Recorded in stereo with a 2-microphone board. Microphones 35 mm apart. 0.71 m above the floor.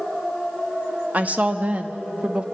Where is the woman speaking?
40° right (ahead or behind), 1.1 m; by 2.5 s 25° right (ahead or behind), 1.0 m.